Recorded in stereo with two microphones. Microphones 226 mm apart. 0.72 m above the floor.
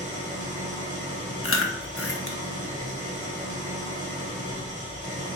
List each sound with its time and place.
0.0 s an engine running: 35° right (ahead or behind), 1.3 m
1.4 s chewing: 70° left (ahead or behind), 0.5 m